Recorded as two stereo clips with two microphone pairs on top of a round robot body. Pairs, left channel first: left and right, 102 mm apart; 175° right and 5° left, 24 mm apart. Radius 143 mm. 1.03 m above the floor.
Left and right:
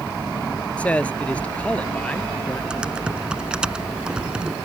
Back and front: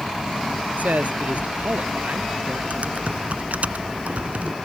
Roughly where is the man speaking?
Ahead.